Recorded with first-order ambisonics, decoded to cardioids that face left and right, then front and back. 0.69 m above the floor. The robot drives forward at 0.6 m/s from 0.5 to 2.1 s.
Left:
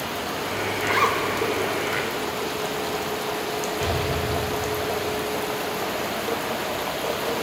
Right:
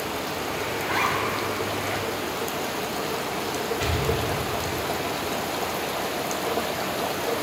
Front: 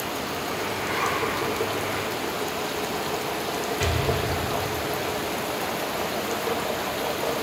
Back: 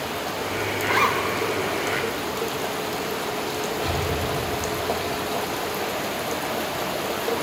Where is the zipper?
120° left, 1.9 m; by 1.2 s 125° left, 2 m.